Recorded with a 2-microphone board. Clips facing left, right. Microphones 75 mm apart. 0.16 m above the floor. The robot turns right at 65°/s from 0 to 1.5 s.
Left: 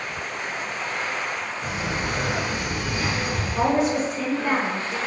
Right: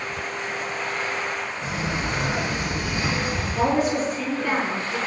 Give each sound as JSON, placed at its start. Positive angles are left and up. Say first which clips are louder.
{"t": 1.6, "sound": "a sliding door", "louder": "even", "side_deg": -35, "distance_m": 1.7}
{"t": 3.5, "sound": "a woman speaking", "louder": "left 1 dB", "side_deg": 25, "distance_m": 1.4}